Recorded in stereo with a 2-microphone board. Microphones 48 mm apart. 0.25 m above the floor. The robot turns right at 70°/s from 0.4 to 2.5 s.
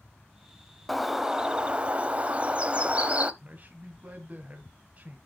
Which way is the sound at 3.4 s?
35° right (ahead or behind).